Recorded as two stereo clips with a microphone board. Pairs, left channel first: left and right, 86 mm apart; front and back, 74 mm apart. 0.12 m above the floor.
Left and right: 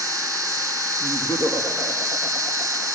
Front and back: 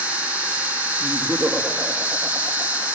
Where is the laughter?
125° left, 5 m.